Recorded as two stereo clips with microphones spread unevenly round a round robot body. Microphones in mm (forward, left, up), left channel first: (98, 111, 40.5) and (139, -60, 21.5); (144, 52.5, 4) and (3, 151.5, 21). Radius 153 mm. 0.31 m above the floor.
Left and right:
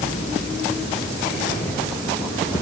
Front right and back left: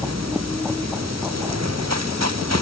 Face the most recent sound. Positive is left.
No sound to turn to.